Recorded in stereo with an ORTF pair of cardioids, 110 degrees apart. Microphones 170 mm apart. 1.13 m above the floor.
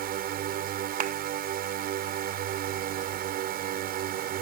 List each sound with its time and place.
0.0 s a drone: 65° right
1.0 s a clap: 50° right